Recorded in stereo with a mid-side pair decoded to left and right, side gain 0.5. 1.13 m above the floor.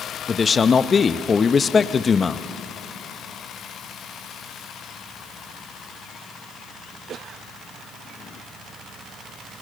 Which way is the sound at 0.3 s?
35° left.